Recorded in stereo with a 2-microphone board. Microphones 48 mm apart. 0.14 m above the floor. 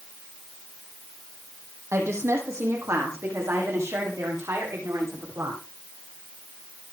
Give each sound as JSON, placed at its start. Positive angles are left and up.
{"t": 1.9, "sound": "a woman speaking", "side_deg": -75, "distance_m": 6.5}